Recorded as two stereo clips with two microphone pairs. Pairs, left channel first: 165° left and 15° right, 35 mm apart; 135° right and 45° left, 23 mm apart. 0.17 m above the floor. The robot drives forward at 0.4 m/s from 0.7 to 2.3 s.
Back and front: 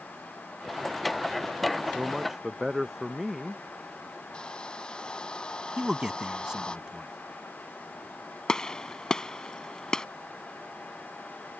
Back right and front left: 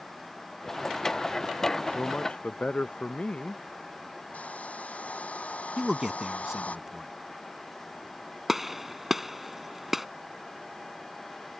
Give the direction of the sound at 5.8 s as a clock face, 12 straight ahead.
12 o'clock.